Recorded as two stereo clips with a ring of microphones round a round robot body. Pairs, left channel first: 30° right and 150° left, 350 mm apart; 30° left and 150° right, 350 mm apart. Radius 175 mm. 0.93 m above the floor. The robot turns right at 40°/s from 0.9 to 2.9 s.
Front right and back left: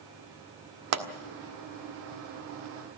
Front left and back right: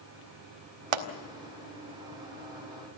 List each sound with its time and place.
0.9 s a pop: 165° right, 1.7 m; by 1.1 s 155° right, 1.7 m